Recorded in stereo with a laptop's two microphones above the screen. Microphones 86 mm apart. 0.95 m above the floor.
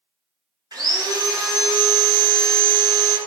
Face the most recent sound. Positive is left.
turn(degrees=-50)  # may be behind; listen again after turning